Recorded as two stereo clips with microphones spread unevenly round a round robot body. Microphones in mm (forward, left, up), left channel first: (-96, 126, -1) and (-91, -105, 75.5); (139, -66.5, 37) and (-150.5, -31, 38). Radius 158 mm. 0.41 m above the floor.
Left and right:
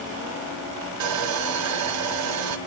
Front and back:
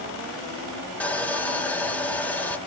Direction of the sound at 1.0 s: 90° right.